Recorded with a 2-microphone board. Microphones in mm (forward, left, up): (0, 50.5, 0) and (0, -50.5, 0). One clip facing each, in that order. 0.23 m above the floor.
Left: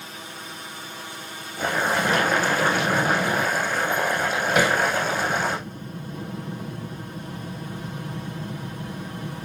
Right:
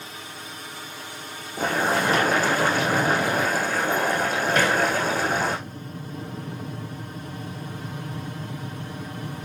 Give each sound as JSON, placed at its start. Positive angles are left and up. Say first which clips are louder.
{"t": 1.6, "sound": "boiling", "louder": "right 1 dB", "side_deg": -45, "distance_m": 8.0}
{"t": 4.5, "sound": "hammering", "louder": "left 2 dB", "side_deg": 10, "distance_m": 2.0}